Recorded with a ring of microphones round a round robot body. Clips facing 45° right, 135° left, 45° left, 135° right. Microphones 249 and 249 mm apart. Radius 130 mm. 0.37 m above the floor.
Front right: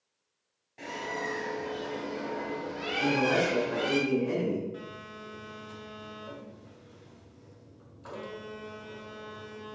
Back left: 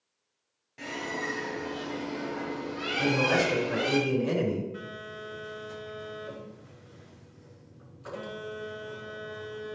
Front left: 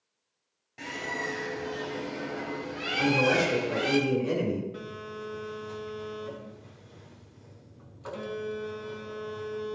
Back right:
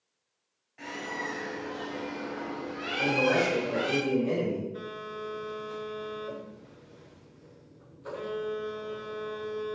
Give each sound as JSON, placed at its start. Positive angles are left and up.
{"t": 0.8, "sound": "a bird", "azimuth_deg": 65, "distance_m": 2.0}
{"t": 3.0, "sound": "a man speaking", "azimuth_deg": 100, "distance_m": 4.0}
{"t": 4.7, "sound": "a phone buzzing", "azimuth_deg": 50, "distance_m": 4.0}